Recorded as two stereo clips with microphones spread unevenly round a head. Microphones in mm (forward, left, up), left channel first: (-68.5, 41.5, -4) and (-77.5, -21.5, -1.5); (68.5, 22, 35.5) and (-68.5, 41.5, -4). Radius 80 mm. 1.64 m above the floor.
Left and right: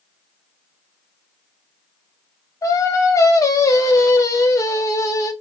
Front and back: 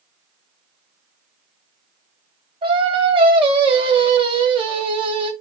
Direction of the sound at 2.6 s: 120° left.